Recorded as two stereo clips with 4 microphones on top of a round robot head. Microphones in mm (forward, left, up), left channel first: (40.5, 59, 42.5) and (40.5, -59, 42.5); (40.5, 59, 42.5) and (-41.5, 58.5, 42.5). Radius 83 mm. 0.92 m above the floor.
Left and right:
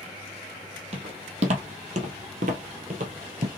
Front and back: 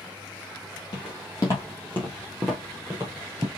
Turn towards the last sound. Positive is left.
turn(degrees=-120)